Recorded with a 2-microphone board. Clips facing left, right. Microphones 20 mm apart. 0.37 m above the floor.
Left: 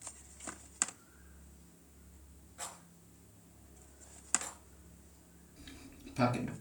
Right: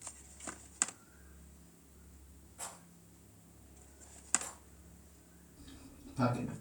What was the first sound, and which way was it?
A rattle, 30° left (ahead or behind).